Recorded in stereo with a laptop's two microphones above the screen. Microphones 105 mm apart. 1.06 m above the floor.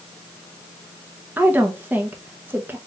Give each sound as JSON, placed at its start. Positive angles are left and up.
{"t": 1.4, "sound": "a woman speaking", "side_deg": -20, "distance_m": 1.4}